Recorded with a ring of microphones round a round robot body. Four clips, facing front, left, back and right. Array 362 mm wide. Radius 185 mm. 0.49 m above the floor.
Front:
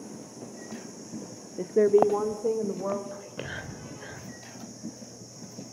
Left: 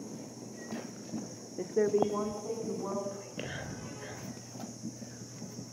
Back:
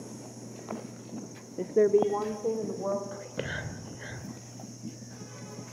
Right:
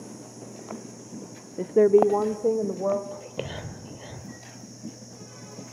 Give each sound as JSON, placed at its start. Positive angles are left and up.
{"t": 1.6, "sound": "a woman speaking", "azimuth_deg": -95, "distance_m": 0.7}
{"t": 3.1, "sound": "whispering", "azimuth_deg": -120, "distance_m": 2.5}